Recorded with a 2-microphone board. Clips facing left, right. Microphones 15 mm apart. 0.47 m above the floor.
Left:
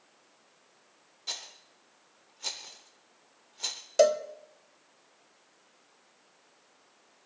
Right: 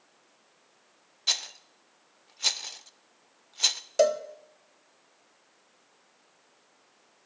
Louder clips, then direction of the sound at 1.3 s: Right 10 dB; 50° right (ahead or behind).